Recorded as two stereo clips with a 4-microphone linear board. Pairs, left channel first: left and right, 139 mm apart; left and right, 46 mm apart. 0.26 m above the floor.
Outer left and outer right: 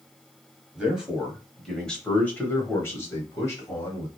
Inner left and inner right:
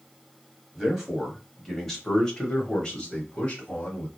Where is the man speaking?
5° right (ahead or behind), 1.3 m; by 4.1 s 25° left (ahead or behind), 1.4 m.